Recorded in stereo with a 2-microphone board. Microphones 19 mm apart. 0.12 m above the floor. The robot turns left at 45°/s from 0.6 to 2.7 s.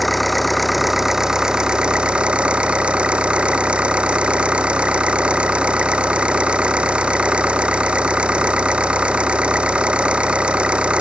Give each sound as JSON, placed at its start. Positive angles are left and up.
{"t": 0.0, "sound": "an engine running", "azimuth_deg": 5}